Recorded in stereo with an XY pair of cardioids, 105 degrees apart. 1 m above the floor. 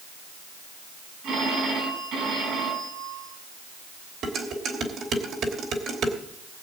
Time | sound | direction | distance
1.2 | a phone ringing | 70° right | 5 m
4.2 | dishes clattering | 60° right | 3 m